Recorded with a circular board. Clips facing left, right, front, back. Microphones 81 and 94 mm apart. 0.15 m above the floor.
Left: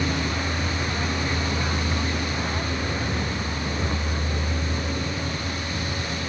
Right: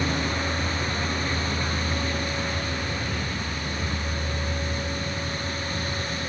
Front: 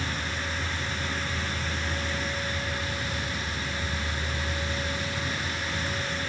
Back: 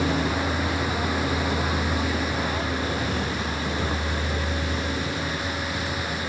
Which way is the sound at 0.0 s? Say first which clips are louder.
Even, back 9 dB; straight behind.